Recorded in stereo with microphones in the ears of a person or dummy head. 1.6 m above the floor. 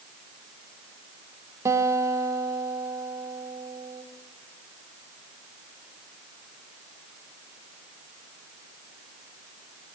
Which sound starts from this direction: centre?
A guitar, at 1.6 s.